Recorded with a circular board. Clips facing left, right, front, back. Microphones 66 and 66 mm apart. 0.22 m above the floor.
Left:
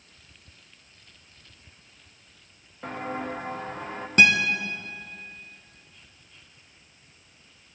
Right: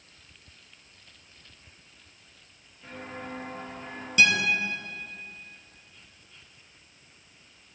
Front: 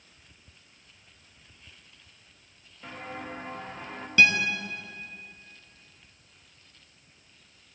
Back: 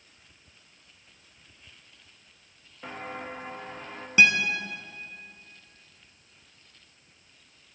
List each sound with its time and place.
2.8 s footsteps: 115° left, 2 m; by 4.1 s 80° left, 2.5 m
4.2 s a guitar: 110° left, 2 m